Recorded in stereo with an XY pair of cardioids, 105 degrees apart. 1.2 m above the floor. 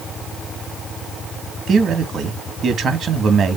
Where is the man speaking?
50° right, 1.8 m.